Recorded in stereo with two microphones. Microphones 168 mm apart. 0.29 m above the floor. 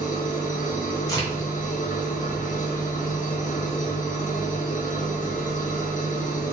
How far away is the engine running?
About 1.2 m.